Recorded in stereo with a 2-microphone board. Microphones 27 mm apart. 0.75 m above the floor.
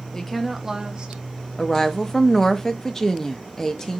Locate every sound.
0.1 s a woman speaking: 20° left (ahead or behind), 0.7 m; by 1.2 s 40° right (ahead or behind), 1.1 m
1.6 s a woman speaking: 20° left (ahead or behind), 0.6 m